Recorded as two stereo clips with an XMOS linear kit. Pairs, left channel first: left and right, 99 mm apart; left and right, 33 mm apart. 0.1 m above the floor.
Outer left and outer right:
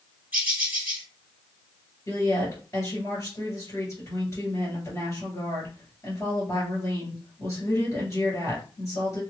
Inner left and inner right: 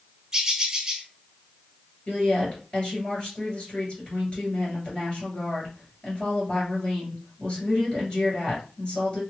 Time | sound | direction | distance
0.3 | a bird | 20° right (ahead or behind) | 1.2 m
2.1 | a woman speaking | 35° left (ahead or behind) | 2 m